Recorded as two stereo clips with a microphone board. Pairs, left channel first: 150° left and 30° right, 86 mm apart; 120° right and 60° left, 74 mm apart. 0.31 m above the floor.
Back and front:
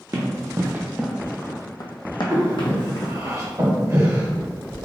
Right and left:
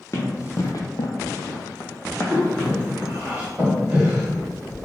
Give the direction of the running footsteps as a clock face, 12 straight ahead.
2 o'clock.